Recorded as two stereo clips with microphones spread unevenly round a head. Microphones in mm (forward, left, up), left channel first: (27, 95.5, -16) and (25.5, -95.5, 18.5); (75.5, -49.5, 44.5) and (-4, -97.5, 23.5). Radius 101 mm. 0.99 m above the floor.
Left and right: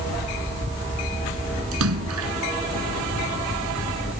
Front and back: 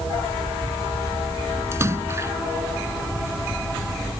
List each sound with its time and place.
1.7 s a splash: 85° right